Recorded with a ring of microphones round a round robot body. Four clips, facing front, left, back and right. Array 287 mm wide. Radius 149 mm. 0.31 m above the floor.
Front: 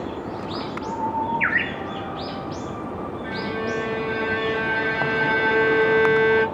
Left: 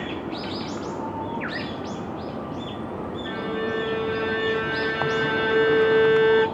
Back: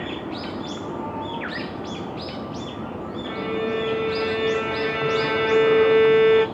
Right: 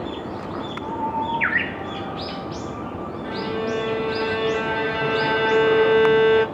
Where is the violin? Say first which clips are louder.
Right 3 dB, back 3 dB; 120° right, 2.5 m.